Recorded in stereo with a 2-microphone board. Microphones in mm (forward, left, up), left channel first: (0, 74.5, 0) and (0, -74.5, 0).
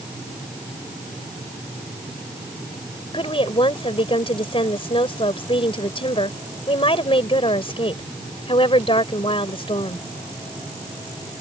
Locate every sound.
3.1 s a woman speaking: 40° left (ahead or behind)